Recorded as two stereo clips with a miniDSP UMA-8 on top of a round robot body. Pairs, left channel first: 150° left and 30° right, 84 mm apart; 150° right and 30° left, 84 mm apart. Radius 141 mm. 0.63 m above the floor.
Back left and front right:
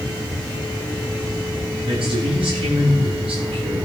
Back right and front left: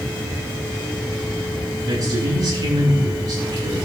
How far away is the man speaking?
About 9 m.